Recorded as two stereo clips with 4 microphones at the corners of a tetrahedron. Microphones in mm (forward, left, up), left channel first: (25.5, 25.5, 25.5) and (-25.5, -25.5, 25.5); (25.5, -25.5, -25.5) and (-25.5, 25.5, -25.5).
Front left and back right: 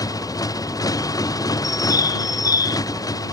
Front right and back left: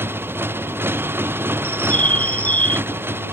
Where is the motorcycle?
75° left.